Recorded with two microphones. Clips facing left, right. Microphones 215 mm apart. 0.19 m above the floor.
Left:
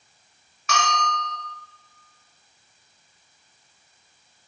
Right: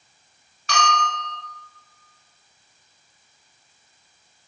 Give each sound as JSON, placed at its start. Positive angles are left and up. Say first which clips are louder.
{"t": 0.7, "sound": "a bell", "louder": "right 2 dB", "side_deg": -35, "distance_m": 1.3}